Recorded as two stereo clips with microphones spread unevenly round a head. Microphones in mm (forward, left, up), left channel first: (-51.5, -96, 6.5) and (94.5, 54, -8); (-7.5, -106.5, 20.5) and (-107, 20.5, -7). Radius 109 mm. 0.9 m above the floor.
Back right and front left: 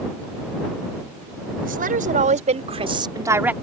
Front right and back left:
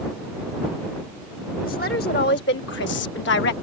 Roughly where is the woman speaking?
Ahead.